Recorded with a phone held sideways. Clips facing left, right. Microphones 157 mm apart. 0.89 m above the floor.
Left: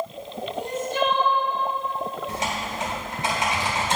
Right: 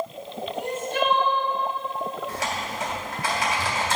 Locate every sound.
0.5 s crying: 65° right (ahead or behind), 1.7 m
2.3 s typing on a keyboard: 25° left (ahead or behind), 3 m